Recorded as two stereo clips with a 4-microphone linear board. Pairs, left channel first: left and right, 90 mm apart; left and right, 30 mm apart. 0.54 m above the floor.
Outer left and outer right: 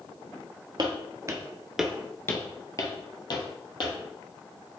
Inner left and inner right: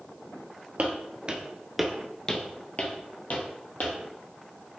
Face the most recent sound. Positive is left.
turn(degrees=55)  # may be behind; listen again after turning